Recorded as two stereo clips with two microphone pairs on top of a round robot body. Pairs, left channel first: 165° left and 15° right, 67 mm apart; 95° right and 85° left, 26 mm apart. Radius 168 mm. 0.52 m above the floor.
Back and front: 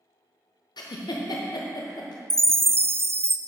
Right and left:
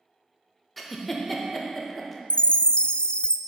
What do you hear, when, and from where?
0.8 s a giggle: straight behind, 0.7 m
2.3 s a chime: 55° right, 0.5 m